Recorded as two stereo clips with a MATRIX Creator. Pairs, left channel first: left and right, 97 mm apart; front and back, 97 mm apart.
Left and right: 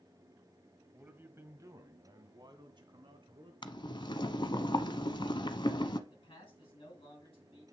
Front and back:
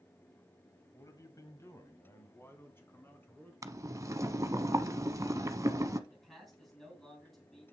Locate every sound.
0.9 s a man speaking: 20° right, 1.3 m; by 3.5 s 70° right, 2.5 m
3.6 s boiling: 125° left, 0.7 m
6.1 s a man speaking: 90° left, 3.5 m